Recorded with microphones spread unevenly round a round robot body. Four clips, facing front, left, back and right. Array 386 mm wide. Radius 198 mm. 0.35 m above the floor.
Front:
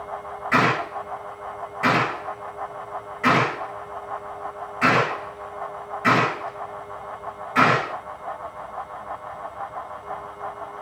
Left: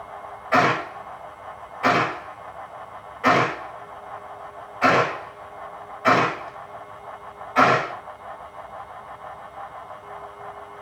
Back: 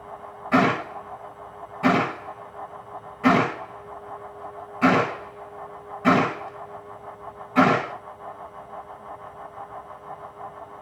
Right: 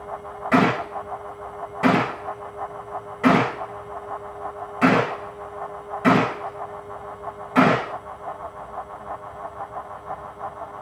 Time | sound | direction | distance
0.5 | a gunshot | 105° right | 8 m